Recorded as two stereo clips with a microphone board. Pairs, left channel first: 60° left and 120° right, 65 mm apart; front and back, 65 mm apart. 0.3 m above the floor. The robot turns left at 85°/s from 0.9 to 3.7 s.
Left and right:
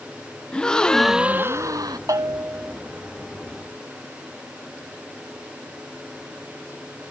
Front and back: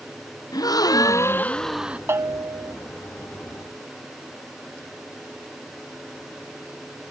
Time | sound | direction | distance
0.5 | a gasp | 20° right | ?
2.1 | a bell | 135° right | ?